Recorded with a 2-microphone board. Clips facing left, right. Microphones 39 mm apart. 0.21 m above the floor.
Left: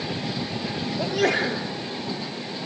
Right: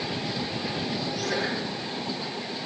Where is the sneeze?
70° left (ahead or behind), 5 m.